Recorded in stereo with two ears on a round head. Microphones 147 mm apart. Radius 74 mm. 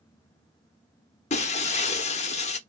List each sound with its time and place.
1.3 s breaking glass: 40° left (ahead or behind), 1.2 m